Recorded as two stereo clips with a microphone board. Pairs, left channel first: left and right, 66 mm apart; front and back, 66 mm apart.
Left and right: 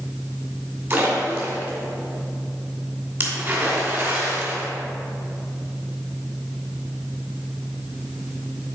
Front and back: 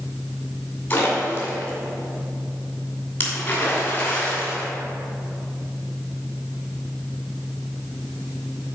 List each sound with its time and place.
0.9 s a splash: 50° right, 2 m